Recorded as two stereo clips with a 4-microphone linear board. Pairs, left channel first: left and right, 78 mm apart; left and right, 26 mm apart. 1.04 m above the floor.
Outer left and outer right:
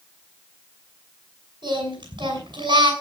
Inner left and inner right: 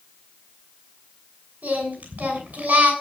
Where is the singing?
80° right, 6.5 m.